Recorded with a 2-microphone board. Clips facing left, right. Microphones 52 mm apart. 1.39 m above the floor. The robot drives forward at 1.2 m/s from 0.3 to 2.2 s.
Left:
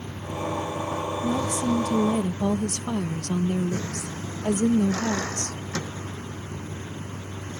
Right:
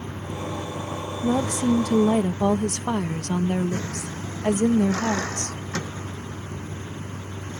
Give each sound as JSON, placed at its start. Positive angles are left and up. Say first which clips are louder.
{"t": 0.0, "sound": "a vehicle", "louder": "left 1 dB", "side_deg": -30}
{"t": 1.2, "sound": "a woman speaking", "louder": "right 5 dB", "side_deg": -55}